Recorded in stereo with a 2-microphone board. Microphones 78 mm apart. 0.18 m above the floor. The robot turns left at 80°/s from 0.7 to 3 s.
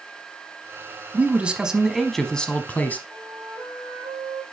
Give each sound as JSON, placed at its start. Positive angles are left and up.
{"t": 1.1, "sound": "a man speaking", "side_deg": -20, "distance_m": 1.0}
{"t": 3.1, "sound": "a flute", "side_deg": -25, "distance_m": 4.5}